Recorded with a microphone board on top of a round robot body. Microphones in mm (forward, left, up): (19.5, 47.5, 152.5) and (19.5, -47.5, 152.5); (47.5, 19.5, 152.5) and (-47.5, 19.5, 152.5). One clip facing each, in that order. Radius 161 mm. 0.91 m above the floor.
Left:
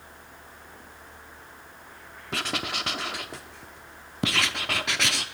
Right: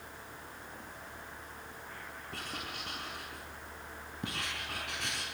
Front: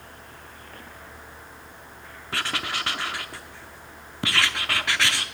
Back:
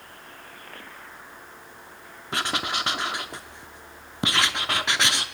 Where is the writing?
110° left, 0.6 m.